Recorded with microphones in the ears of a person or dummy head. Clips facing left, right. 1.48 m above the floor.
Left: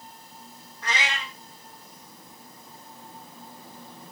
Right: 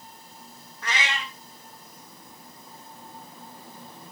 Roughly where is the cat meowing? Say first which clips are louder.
Even; right.